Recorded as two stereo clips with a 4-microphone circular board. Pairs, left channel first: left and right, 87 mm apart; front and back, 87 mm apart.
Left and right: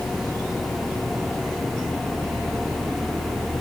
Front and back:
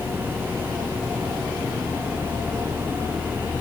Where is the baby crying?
I don't hear a baby crying.